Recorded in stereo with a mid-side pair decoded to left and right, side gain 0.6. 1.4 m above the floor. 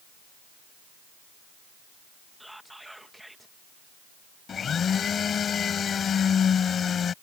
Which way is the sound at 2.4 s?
5° right.